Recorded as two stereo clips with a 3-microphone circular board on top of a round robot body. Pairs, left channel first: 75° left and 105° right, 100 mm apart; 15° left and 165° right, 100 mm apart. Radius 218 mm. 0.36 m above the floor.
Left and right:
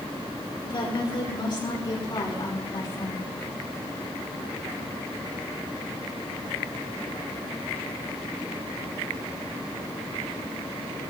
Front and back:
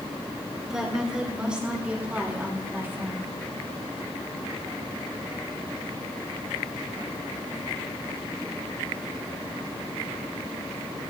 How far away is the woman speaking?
About 6 m.